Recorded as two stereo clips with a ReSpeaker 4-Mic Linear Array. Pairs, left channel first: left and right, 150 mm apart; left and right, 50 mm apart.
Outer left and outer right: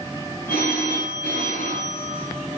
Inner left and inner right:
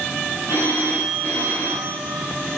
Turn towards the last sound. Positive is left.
turn(degrees=75)  # may be behind; listen again after turning